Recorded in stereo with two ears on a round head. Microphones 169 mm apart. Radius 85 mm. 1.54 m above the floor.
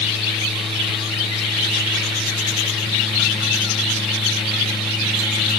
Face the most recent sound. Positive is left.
No sound to turn to.